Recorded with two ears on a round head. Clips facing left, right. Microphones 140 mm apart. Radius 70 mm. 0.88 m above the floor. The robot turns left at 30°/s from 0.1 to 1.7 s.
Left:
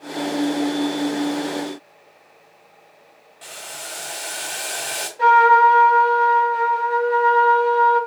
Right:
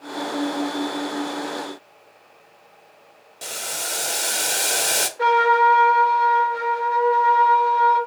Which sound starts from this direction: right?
Boiling, at 3.4 s.